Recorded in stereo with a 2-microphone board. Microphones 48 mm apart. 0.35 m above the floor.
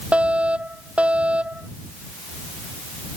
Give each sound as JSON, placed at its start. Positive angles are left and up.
{"t": 0.1, "sound": "a fire alarm", "side_deg": -25}